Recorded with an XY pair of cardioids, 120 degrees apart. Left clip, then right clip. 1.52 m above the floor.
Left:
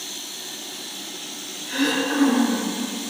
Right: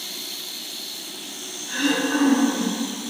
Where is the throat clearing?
70° left, 2.0 m.